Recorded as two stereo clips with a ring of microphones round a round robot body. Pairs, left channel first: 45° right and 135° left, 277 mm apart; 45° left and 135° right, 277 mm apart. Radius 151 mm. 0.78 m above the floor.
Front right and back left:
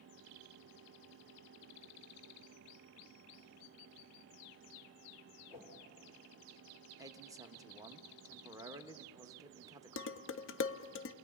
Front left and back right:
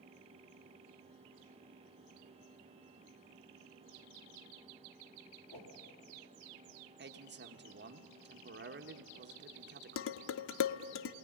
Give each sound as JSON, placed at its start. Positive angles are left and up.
{"t": 5.5, "sound": "a whoosh", "azimuth_deg": 55, "distance_m": 3.5}
{"t": 7.0, "sound": "a man speaking", "azimuth_deg": -155, "distance_m": 1.1}
{"t": 10.0, "sound": "dishes clattering", "azimuth_deg": 0, "distance_m": 0.6}